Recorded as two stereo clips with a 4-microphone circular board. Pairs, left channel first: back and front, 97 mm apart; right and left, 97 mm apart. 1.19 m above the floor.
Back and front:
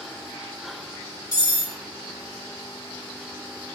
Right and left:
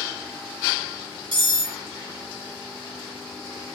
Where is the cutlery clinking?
125° left, 1.1 m.